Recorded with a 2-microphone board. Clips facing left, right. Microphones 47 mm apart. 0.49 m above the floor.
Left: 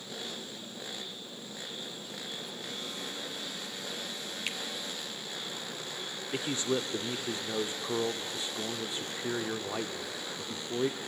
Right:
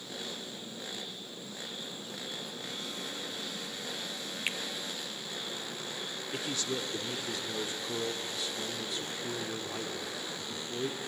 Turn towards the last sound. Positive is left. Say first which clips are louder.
# left 5 dB
turn(degrees=25)  # may be behind; listen again after turning